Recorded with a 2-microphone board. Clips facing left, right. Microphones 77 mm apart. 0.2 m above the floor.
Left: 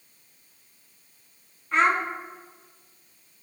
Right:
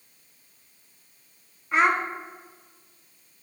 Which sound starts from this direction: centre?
A child speaking, at 1.7 s.